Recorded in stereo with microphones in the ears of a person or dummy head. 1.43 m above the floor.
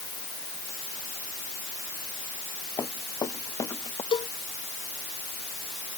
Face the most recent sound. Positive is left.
turn(degrees=25)  # may be behind; listen again after turning